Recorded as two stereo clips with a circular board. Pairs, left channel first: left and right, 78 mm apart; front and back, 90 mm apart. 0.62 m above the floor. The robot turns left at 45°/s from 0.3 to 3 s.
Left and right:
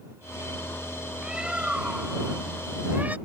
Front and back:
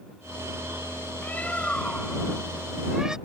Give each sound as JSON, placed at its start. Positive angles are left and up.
{"t": 1.2, "sound": "a bird", "azimuth_deg": -25}